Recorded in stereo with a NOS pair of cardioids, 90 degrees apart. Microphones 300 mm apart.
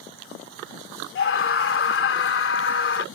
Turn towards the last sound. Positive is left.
turn(degrees=45)